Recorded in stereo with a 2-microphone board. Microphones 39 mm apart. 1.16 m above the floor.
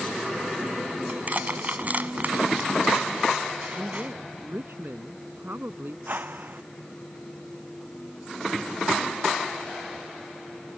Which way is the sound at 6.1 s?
55° right (ahead or behind).